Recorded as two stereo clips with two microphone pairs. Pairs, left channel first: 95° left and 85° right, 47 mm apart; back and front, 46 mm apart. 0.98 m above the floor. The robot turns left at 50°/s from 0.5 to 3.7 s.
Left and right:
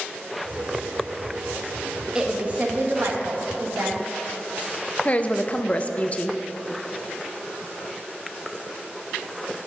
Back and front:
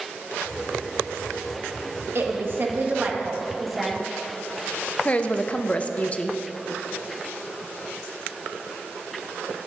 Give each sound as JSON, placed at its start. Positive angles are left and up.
{"t": 2.1, "sound": "a woman speaking", "azimuth_deg": -15, "distance_m": 1.4}
{"t": 5.0, "sound": "a woman speaking", "azimuth_deg": 130, "distance_m": 0.7}